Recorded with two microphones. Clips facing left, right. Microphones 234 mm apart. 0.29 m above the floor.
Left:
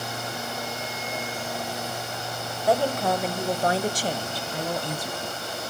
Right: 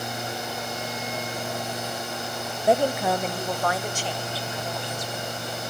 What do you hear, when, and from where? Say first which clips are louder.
2.7 s a woman speaking: right 1 dB; 25° right (ahead or behind), 0.9 m; by 5.5 s 65° left (ahead or behind), 2.0 m